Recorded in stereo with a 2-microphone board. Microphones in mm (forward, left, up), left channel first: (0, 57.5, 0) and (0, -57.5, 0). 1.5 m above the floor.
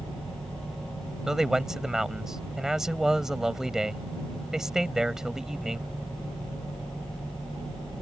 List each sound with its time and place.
1.3 s a man speaking: 5° right (ahead or behind)